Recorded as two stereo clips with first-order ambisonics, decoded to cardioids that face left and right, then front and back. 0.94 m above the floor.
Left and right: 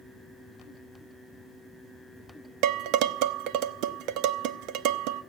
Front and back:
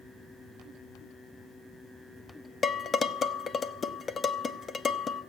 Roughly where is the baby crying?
I don't hear a baby crying.